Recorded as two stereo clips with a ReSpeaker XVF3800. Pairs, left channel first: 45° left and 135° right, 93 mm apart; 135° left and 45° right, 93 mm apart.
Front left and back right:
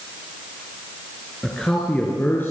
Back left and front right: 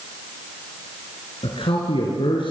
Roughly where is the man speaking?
Behind left.